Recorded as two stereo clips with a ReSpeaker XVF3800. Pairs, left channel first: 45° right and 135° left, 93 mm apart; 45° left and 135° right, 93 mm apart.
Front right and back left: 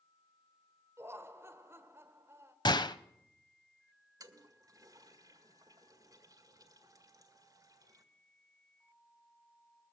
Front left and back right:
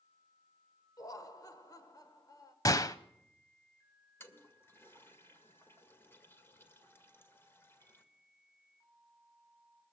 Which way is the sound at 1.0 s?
80° left.